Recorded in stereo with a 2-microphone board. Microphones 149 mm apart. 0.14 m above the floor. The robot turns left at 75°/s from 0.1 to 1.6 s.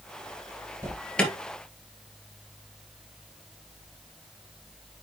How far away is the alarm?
About 2.0 m.